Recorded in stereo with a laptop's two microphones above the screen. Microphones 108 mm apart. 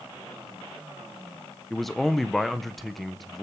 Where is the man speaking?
Centre (ahead or behind), 0.6 m.